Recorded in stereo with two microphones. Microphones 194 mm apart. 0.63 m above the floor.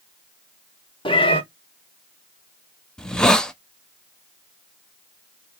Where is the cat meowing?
25° left (ahead or behind), 1.2 m.